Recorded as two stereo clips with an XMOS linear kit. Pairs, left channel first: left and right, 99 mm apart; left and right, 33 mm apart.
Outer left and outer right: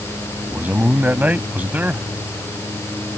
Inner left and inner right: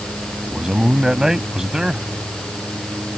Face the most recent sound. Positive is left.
turn(degrees=-15)  # may be behind; listen again after turning